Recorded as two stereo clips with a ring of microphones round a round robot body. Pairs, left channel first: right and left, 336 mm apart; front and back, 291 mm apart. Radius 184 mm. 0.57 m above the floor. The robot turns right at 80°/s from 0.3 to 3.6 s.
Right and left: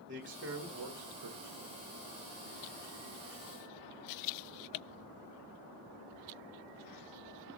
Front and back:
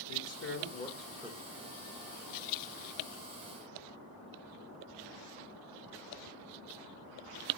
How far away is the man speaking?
About 1.9 m.